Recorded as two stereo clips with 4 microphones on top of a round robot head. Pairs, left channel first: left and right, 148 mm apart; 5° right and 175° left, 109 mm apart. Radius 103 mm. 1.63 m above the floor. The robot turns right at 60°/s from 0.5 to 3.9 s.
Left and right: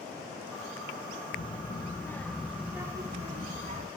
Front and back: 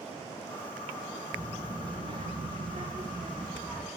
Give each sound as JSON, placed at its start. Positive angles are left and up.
{"t": 1.3, "sound": "a child speaking", "azimuth_deg": 115, "distance_m": 0.9}